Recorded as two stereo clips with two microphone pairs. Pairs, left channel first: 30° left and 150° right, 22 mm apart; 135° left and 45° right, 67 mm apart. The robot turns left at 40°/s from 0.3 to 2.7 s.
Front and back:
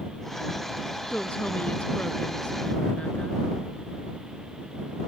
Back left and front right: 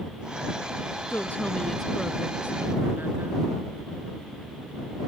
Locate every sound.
1.1 s a woman speaking: 80° left; by 3.4 s 15° left